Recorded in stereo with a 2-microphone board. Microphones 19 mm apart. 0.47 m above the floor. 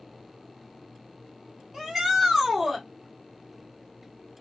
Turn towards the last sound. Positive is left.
turn(degrees=0)  # may be behind; listen again after turning